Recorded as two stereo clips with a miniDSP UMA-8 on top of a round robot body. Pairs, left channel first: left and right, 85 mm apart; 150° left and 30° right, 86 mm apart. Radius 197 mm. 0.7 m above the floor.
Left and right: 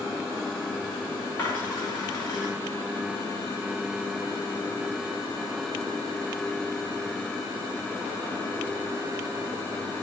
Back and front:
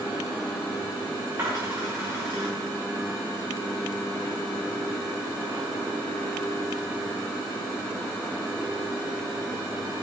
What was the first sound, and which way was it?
A dropped coin, 35° left.